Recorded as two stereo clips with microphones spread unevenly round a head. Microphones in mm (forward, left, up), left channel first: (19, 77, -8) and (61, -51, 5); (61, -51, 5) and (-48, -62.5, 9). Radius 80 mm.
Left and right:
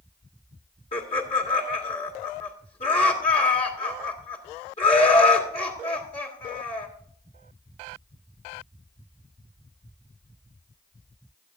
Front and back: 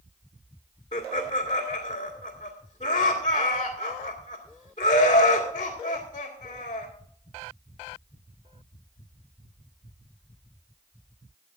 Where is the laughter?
65° left, 2 m.